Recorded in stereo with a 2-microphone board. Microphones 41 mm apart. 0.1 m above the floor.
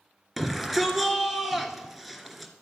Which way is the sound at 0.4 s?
5° right (ahead or behind).